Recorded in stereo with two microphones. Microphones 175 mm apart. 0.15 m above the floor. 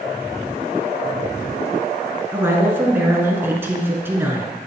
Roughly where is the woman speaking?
Centre.